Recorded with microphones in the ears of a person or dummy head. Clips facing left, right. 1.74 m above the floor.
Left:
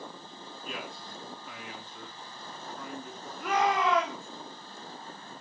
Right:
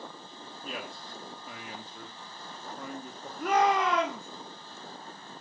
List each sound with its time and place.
0.6 s a man speaking: 30° right (ahead or behind), 1.8 m
3.4 s a shout: 40° right (ahead or behind), 1.7 m